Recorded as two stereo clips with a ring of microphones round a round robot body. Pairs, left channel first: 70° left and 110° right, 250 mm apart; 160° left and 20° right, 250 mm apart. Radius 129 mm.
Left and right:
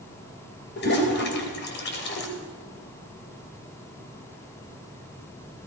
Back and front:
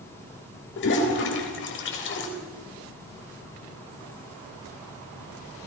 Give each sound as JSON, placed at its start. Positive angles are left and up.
{"t": 0.8, "sound": "a toilet flushing", "azimuth_deg": 115, "distance_m": 3.5}